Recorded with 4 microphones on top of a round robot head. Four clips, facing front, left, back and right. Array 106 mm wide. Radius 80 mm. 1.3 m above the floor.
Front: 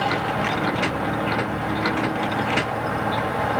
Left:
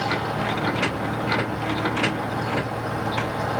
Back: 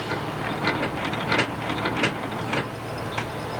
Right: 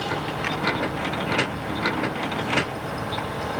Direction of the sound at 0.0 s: 20° left.